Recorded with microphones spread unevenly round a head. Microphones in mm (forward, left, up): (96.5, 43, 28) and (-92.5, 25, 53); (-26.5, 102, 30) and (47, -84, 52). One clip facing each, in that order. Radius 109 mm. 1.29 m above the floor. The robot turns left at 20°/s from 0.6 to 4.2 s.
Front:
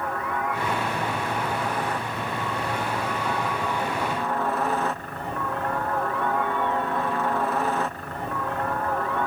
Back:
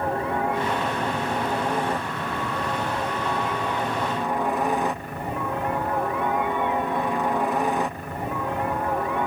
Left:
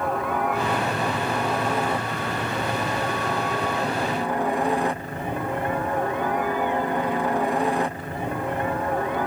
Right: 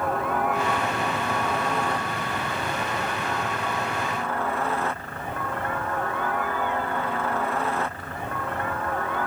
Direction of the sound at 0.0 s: 170° right.